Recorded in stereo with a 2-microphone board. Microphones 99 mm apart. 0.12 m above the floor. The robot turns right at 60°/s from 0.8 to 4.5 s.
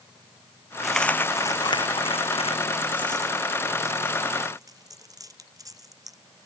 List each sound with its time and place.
0.8 s a dropped coin: centre (ahead or behind); by 6.2 s 40° right (ahead or behind)